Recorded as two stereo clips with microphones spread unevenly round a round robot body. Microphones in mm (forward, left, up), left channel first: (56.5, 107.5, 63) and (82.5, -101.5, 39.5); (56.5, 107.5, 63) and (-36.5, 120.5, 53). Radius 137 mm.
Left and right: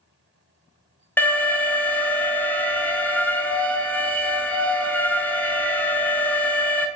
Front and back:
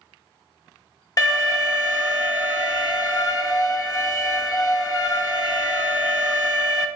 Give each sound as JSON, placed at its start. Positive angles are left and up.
{"t": 1.2, "sound": "an alarm", "azimuth_deg": 10, "distance_m": 0.9}